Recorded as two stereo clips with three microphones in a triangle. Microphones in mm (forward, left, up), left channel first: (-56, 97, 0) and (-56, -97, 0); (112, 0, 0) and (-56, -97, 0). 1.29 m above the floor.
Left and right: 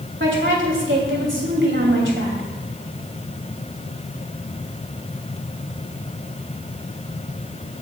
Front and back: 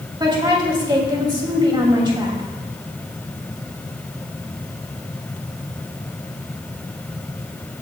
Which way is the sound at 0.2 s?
85° right.